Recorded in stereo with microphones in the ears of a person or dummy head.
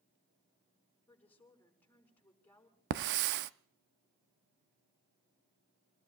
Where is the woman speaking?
10° left (ahead or behind), 6 m.